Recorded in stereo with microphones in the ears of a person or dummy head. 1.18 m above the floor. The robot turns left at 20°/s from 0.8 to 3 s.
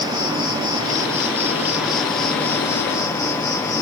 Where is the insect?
150° right, 1.0 m; by 3.8 s 165° left, 1.0 m.